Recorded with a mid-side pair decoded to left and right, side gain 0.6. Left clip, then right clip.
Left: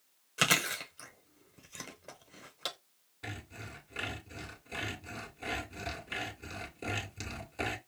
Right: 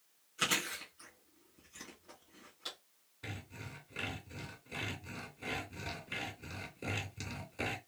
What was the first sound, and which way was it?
Chewing, 65° left.